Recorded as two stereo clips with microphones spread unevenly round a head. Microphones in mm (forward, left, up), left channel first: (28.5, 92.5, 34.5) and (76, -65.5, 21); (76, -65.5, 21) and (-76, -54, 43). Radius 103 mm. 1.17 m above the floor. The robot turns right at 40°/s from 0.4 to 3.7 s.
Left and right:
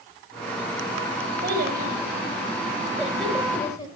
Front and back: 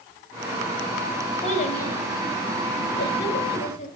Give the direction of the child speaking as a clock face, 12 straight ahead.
2 o'clock.